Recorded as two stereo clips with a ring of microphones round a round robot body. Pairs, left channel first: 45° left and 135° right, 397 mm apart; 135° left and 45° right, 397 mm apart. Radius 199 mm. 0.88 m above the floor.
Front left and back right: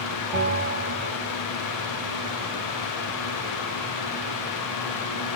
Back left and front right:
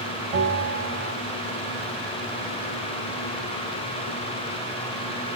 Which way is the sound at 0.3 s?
85° right.